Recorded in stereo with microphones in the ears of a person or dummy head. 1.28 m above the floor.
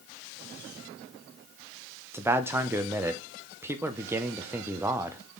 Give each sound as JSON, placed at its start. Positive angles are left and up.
{"t": 2.1, "sound": "a man speaking", "side_deg": -10, "distance_m": 0.8}